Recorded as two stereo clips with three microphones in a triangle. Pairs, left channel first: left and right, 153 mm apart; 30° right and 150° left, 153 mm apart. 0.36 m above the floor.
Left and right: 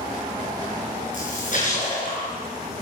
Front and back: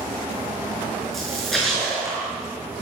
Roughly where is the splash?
Ahead left.